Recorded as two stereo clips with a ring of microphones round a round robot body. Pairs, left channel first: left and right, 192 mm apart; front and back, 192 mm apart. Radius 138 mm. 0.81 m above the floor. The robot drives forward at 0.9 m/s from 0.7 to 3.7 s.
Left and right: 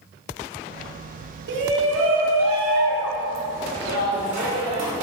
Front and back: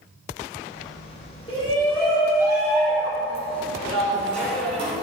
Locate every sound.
1.5 s a shout: 70° right, 1.7 m; by 4.9 s 135° right, 2 m